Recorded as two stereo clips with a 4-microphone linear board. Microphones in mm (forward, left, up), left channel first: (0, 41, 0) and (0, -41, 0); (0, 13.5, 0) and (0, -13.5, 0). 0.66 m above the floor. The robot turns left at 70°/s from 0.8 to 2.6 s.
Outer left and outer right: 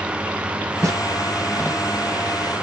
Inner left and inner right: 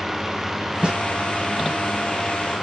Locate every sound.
0.8 s a snare drum: 40° right (ahead or behind), 0.9 m; by 1.0 s 50° right (ahead or behind), 0.9 m